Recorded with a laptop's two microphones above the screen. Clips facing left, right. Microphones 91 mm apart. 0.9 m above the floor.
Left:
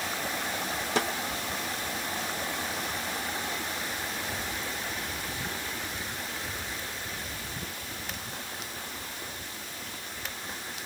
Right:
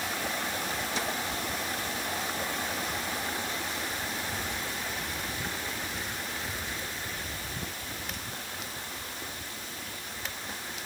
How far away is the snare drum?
About 2 m.